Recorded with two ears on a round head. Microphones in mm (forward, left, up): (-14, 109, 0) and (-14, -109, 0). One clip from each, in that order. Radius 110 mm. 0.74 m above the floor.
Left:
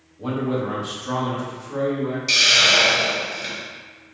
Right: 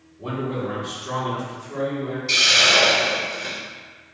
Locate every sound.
0.2 s a man speaking: 45° left (ahead or behind), 1.1 m; by 2.2 s 5° left (ahead or behind), 1.2 m
2.3 s a hiss: 60° left (ahead or behind), 1.6 m